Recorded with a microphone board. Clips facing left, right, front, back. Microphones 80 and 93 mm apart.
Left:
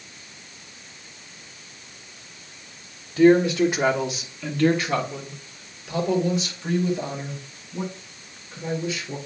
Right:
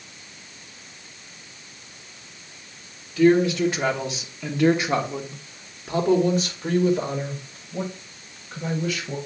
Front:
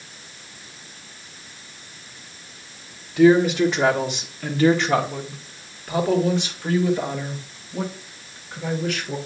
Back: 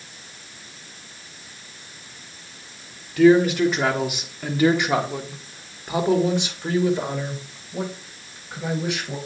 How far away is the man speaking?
About 1.2 m.